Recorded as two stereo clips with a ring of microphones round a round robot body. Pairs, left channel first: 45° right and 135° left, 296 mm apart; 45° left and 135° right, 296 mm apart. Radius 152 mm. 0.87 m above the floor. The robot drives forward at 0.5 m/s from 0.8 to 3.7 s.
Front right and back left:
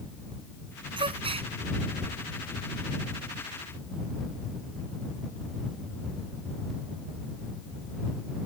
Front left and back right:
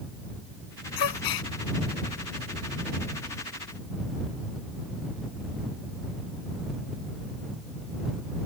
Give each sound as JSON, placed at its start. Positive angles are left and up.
{"t": 1.0, "sound": "a gasp", "azimuth_deg": 60}